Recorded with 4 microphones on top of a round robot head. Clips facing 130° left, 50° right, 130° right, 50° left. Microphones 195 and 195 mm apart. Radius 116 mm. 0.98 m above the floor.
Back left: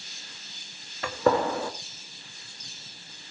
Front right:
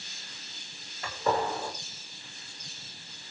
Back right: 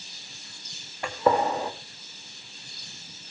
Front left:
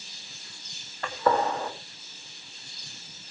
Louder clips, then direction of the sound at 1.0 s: Back left 6 dB, back right 2 dB; 155° left.